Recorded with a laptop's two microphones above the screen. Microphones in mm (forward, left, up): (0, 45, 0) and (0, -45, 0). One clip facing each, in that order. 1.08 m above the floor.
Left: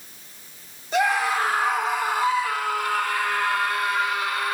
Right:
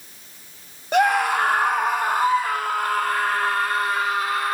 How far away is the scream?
About 2 m.